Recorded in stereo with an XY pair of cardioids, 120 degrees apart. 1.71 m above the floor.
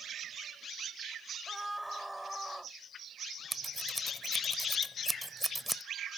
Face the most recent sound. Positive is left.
turn(degrees=-5)